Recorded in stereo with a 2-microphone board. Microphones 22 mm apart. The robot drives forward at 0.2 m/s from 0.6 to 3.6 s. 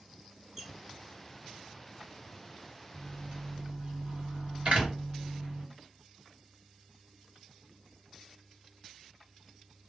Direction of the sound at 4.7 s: 55° right (ahead or behind).